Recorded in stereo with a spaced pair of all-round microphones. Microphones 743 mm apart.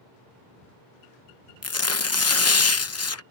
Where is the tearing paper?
20° left (ahead or behind).